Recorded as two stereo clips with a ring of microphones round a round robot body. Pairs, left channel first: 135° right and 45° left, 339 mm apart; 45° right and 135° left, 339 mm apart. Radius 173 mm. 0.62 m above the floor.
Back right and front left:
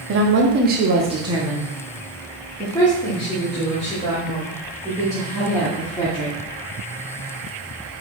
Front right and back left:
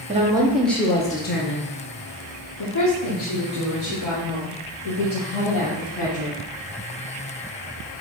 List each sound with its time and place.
0.1 s a woman speaking: 75° left, 0.9 m; by 6.3 s 70° right, 3.5 m